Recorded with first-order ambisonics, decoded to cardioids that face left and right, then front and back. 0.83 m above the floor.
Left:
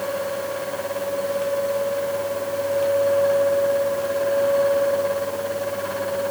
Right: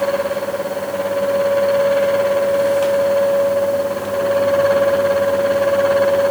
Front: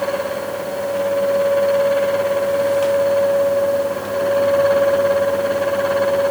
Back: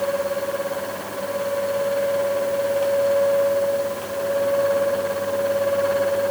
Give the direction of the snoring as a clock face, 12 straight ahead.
I don't hear snoring.